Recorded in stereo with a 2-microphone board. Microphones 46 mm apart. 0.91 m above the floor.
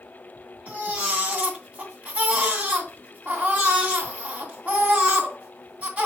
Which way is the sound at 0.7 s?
30° right (ahead or behind).